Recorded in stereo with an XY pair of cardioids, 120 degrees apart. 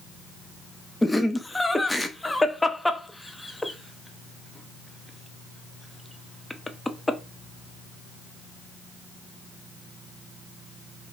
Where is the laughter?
10° left, 0.7 m.